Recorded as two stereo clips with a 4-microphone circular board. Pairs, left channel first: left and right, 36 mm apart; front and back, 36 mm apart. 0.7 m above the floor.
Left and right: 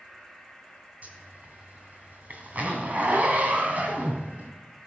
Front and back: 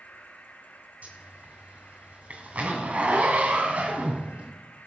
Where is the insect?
5° right, 4 m.